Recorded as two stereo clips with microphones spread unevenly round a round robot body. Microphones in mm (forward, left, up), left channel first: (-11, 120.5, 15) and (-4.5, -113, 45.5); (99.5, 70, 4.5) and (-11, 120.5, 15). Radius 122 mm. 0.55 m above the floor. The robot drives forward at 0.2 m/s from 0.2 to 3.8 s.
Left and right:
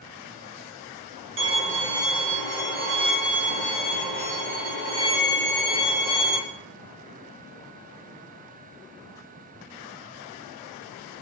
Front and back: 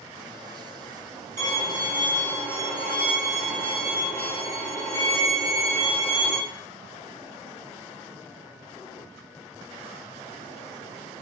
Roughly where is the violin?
Behind right.